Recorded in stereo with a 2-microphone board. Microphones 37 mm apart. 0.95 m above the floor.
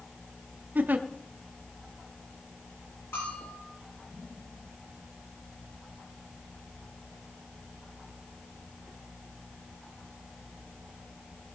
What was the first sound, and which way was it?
A giggle, 55° right (ahead or behind).